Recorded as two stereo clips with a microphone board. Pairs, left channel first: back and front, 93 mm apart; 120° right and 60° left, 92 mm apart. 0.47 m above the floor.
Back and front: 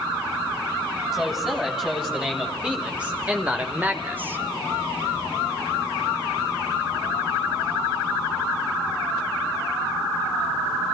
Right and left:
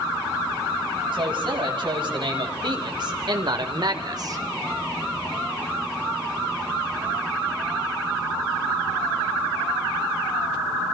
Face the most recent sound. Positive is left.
turn(degrees=55)